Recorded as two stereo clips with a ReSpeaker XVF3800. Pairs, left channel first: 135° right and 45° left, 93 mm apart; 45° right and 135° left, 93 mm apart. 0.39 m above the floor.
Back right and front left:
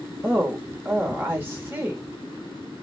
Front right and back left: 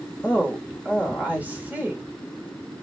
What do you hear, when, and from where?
0.2 s a woman speaking: 80° left, 1.0 m